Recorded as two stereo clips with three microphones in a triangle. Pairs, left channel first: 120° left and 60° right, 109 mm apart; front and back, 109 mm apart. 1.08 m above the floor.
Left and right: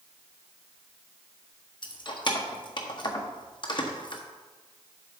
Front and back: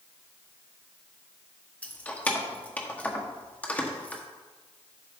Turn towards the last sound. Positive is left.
turn(degrees=75)